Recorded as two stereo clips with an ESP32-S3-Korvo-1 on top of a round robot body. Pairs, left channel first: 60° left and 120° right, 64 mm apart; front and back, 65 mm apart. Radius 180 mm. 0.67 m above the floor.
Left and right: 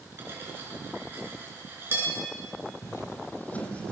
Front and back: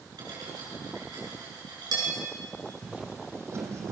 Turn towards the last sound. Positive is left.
turn(degrees=135)